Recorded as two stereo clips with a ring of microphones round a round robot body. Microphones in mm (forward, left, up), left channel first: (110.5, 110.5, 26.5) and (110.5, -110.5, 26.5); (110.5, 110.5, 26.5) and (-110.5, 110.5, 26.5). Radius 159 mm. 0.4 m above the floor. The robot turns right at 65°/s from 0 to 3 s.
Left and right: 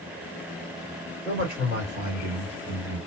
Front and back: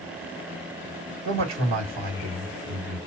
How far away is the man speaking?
About 2 m.